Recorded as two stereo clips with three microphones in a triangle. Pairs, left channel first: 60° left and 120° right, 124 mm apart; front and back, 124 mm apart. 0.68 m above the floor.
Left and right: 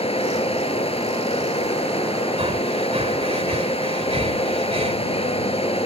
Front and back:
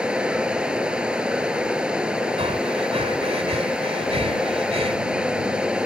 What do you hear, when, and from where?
0.0 s running water: 95° left
2.4 s breathing: 150° right